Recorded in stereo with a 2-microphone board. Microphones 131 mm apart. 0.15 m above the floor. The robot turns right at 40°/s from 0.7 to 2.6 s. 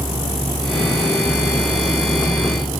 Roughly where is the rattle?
No rattle in this recording.